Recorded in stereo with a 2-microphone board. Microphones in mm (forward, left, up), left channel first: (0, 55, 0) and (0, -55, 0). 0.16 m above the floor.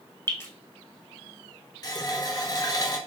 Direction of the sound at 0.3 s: 25° left (ahead or behind).